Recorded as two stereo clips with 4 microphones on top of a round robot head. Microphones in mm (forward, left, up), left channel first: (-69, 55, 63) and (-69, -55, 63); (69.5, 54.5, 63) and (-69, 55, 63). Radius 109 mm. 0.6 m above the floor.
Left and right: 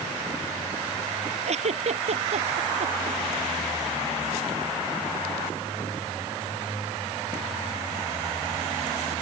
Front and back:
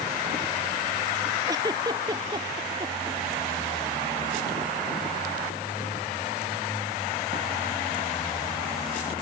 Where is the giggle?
110° right.